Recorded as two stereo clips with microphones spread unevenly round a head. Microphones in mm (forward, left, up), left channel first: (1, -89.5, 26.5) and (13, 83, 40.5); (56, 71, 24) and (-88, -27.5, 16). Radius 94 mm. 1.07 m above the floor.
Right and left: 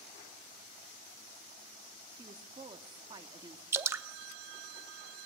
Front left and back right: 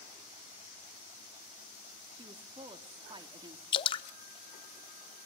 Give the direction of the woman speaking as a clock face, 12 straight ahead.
7 o'clock.